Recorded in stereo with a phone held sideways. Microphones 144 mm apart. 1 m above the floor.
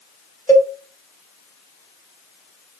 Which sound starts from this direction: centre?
A cowbell, at 0.5 s.